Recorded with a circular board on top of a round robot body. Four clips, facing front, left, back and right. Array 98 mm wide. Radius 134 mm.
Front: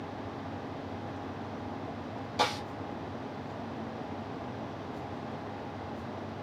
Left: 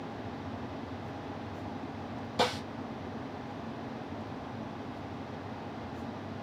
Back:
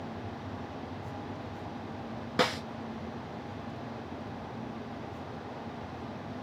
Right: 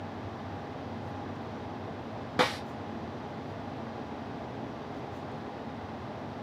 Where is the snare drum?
125° right, 1.6 m.